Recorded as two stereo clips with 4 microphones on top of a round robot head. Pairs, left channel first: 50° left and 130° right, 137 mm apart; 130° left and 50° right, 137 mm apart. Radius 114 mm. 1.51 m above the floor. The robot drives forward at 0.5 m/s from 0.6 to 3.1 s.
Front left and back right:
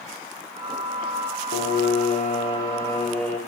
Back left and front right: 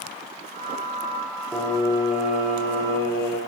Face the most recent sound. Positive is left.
turn(degrees=130)